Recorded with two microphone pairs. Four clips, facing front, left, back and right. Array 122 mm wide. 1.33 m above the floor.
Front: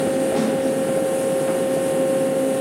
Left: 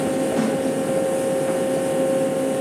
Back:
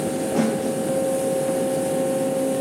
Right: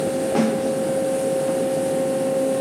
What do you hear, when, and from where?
0.3 s a snare drum: 75° right, 4 m